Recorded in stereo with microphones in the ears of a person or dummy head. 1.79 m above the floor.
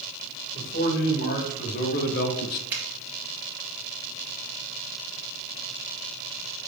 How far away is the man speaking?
About 3 m.